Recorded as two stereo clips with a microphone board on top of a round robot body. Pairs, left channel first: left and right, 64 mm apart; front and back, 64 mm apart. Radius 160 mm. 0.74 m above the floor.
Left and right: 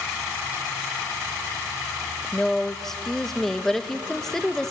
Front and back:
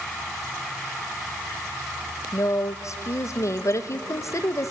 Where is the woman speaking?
10° left, 1.2 m.